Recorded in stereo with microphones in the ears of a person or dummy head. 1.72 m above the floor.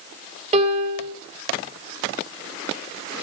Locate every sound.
0.5 s a piano: 35° right (ahead or behind), 3.5 m